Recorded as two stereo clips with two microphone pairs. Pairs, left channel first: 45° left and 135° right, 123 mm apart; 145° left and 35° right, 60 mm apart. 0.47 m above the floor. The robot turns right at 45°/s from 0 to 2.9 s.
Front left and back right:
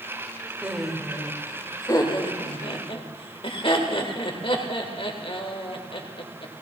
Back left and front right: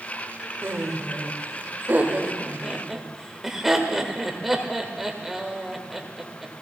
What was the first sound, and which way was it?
Laughter, 55° right.